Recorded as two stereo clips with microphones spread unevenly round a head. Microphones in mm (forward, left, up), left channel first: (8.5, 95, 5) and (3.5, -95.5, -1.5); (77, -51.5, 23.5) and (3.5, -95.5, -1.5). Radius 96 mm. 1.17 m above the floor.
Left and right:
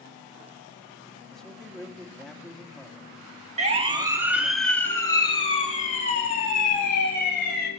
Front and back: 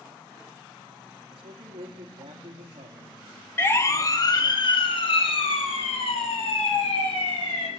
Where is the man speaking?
175° left, 2 m.